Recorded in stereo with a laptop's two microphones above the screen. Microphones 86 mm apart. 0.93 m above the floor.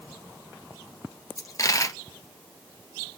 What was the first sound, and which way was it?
A dropped coin, 40° left (ahead or behind).